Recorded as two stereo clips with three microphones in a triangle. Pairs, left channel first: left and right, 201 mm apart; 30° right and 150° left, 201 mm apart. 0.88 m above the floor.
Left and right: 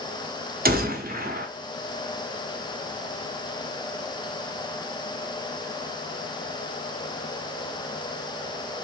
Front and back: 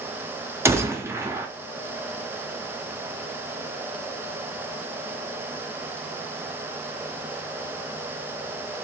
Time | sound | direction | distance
0.7 | a gunshot | 130° right | 0.6 m